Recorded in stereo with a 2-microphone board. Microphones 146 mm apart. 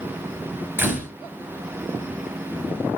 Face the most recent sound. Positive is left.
turn(degrees=-15)  # may be behind; listen again after turning